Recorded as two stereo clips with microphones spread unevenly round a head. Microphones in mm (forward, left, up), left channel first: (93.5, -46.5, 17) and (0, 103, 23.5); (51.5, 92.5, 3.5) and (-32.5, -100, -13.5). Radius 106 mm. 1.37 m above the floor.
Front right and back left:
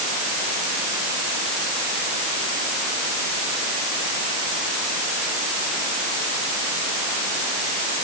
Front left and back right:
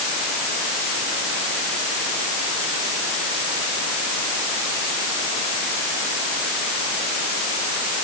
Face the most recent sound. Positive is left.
No sound to turn to.